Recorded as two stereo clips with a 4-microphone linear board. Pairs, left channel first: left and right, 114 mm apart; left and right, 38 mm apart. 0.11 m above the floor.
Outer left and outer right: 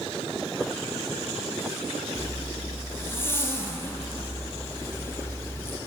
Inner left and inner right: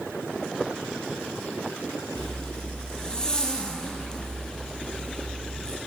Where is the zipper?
20° left (ahead or behind), 0.7 m.